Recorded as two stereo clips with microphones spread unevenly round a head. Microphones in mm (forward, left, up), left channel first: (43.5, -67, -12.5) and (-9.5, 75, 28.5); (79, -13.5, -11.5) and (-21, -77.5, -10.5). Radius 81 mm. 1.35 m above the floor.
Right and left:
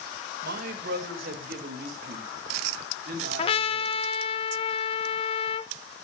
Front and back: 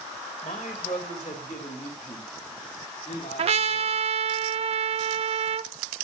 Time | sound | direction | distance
0.4 | a man speaking | 85° left | 2 m
3.4 | a trumpet | 130° right | 1.0 m